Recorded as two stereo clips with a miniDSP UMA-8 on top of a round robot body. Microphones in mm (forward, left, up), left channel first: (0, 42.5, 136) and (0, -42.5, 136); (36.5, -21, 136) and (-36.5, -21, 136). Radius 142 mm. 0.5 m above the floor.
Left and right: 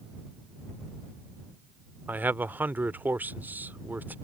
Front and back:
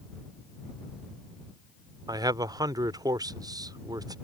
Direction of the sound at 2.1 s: 155° right.